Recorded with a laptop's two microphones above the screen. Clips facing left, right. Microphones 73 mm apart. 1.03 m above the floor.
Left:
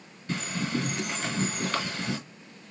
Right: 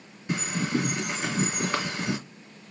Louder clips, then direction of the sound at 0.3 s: Right 3 dB; 20° right (ahead or behind).